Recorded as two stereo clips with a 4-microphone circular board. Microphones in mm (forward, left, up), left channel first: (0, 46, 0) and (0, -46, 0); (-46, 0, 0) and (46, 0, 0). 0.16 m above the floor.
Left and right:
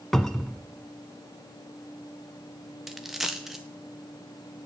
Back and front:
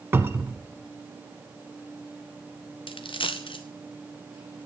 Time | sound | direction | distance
0.1 | a cupboard door | 10° left | 0.7 m
2.9 | a dropped coin | 175° right | 1.2 m